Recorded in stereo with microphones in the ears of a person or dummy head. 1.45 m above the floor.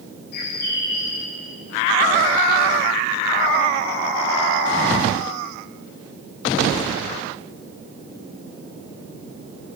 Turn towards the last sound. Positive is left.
turn(degrees=60)  # may be behind; listen again after turning